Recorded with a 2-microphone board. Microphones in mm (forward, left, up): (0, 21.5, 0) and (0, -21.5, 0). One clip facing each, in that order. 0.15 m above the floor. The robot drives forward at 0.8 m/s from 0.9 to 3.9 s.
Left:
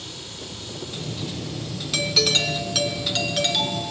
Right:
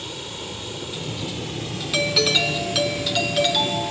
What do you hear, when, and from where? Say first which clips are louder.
0.0 s running water: right 5 dB; 45° right (ahead or behind), 2.5 m; by 3.9 s 60° right (ahead or behind), 2 m
1.9 s a doorbell: right 2 dB; 20° right (ahead or behind), 1.6 m; by 3.9 s 10° right (ahead or behind), 2.5 m